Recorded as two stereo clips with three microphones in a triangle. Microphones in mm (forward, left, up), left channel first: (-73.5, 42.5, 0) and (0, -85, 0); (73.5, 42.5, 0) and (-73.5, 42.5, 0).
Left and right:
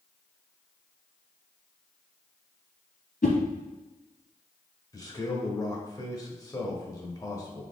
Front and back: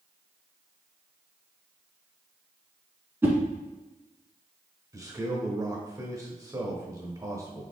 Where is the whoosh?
105° left, 1.0 m.